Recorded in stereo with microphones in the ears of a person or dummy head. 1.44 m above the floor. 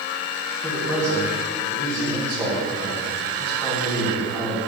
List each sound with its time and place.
0.6 s a man speaking: centre (ahead or behind), 1.5 m